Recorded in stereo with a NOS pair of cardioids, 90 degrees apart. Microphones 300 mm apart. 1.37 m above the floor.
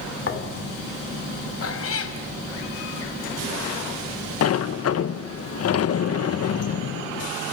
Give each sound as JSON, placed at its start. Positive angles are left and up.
{"t": 0.2, "sound": "a thud", "azimuth_deg": 45, "distance_m": 2.0}
{"t": 1.6, "sound": "a cat meowing", "azimuth_deg": 50, "distance_m": 3.5}
{"t": 4.4, "sound": "a sliding door", "azimuth_deg": 55, "distance_m": 1.1}